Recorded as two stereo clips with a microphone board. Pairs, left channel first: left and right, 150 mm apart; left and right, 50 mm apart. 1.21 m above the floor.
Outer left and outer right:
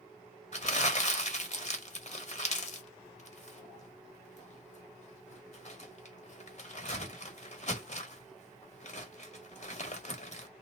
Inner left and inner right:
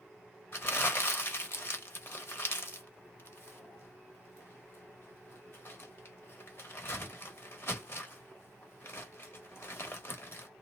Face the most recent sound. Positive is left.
turn(degrees=50)  # may be behind; listen again after turning